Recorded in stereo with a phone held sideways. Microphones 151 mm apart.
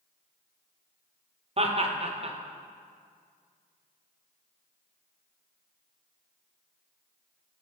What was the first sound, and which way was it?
Laughter, 40° right (ahead or behind).